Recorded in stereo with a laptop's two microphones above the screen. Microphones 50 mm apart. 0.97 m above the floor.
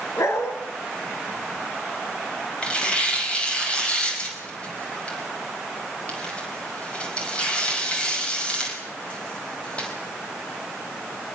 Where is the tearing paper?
25° left (ahead or behind), 5 m.